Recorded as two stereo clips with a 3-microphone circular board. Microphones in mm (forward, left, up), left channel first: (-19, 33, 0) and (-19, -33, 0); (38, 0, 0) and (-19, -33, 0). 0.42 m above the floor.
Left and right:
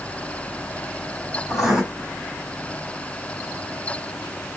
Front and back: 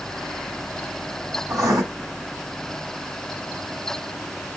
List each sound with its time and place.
1.5 s writing: 170° right, 2.5 m